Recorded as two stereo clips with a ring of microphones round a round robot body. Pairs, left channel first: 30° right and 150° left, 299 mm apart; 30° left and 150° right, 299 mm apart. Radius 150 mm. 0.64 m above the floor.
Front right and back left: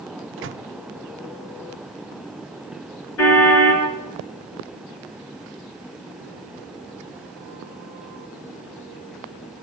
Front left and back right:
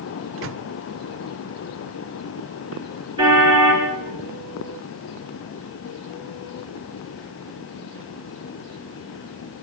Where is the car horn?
75° right, 6 m.